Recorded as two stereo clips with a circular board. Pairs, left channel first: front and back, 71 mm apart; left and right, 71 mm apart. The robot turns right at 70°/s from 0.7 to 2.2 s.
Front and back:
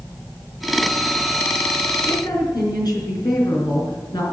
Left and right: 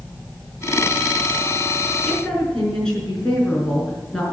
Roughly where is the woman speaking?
Ahead.